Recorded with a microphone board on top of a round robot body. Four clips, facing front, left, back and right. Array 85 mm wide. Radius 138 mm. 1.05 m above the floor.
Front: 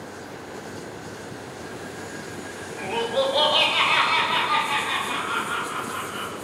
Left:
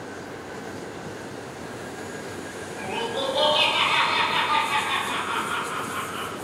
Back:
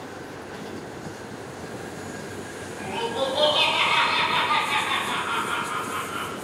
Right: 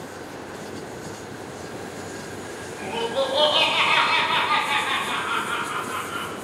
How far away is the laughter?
About 1.0 m.